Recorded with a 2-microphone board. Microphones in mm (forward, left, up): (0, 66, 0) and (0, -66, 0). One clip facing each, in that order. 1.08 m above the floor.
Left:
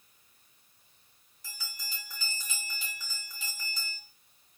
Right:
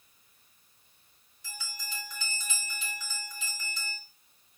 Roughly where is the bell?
Left.